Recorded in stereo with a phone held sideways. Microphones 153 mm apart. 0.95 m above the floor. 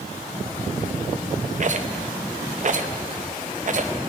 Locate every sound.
1.6 s a rattle: 55° right (ahead or behind), 0.7 m